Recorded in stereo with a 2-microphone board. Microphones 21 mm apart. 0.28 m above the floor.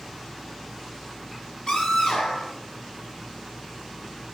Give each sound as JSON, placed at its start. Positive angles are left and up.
{"t": 1.7, "sound": "a scream", "side_deg": 45, "distance_m": 6.0}